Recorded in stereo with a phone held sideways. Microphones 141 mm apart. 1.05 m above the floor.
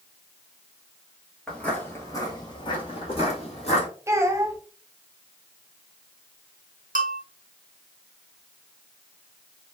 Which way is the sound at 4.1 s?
20° right (ahead or behind).